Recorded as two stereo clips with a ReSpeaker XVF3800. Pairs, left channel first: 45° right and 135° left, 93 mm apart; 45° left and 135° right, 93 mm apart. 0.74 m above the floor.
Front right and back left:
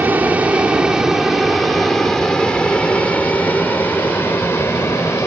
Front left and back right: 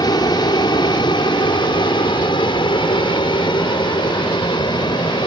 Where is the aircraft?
70° left; by 5.3 s 15° left.